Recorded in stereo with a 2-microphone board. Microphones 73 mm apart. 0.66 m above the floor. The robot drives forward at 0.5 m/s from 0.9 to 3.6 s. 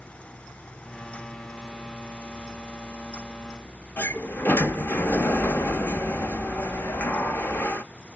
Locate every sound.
4.0 s a sliding door: 25° left (ahead or behind), 0.6 m